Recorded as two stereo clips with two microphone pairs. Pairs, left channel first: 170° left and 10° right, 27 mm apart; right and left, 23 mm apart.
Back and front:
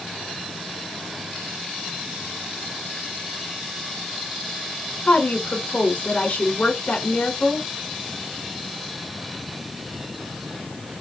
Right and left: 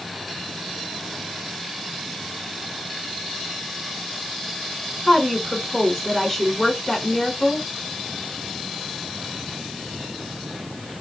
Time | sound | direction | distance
5.1 | a woman speaking | 175° right | 3.5 m